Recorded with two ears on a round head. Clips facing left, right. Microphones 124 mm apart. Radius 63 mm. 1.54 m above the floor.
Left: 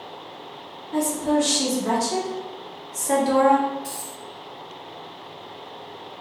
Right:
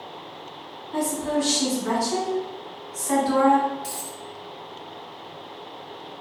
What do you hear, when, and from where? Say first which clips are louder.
0.9 s a woman speaking: left 3 dB; 30° left (ahead or behind), 1.4 m
3.8 s a dropped coin: even; 30° right (ahead or behind), 1.2 m